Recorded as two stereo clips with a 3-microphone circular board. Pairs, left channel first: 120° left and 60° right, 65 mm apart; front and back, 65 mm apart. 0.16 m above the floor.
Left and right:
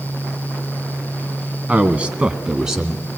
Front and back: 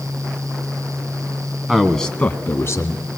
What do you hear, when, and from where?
1.7 s a man speaking: 105° right, 1.1 m; by 3.0 s 25° left, 1.7 m